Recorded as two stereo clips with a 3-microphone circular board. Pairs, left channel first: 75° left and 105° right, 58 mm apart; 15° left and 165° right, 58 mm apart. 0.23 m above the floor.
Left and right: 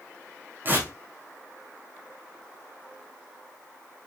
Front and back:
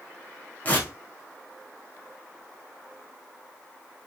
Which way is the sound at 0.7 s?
50° right.